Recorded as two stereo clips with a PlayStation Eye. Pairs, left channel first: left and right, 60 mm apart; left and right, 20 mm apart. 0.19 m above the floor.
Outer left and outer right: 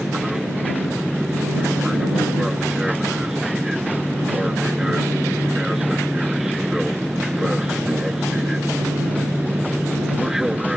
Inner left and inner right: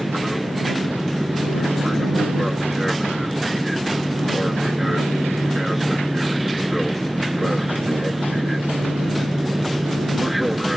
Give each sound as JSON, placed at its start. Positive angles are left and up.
{"t": 0.0, "sound": "an aircraft", "side_deg": -10}